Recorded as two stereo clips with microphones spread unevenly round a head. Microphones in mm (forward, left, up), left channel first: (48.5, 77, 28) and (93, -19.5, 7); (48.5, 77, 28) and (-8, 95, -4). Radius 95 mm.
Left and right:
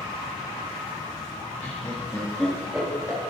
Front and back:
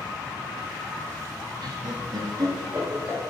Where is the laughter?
175° left, 2 m; by 3.2 s 130° right, 2.5 m.